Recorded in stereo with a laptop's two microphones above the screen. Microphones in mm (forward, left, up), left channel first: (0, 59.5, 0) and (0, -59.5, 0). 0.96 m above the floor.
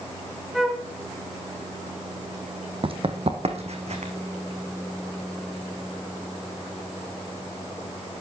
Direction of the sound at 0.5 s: 5° right (ahead or behind).